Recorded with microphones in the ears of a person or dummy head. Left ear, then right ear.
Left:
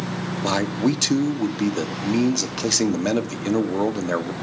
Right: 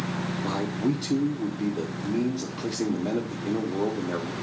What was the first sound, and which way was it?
A man speaking, 70° left (ahead or behind).